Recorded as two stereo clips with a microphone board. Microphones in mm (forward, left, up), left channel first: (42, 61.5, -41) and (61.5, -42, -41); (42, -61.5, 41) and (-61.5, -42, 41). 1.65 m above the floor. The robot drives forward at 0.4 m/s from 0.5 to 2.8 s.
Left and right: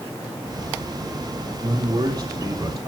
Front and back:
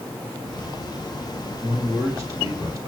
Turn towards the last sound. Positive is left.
turn(degrees=-135)